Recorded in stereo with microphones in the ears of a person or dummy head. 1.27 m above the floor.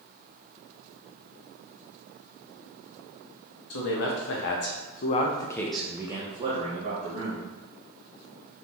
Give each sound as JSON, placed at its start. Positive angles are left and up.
{"t": 3.7, "sound": "a man speaking", "side_deg": 85, "distance_m": 1.2}